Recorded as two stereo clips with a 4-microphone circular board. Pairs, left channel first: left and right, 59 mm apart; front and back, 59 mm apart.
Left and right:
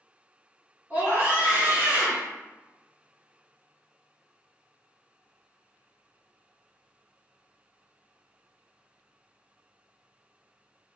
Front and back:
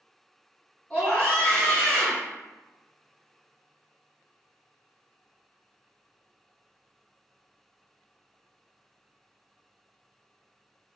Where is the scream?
70° right, 1.9 m.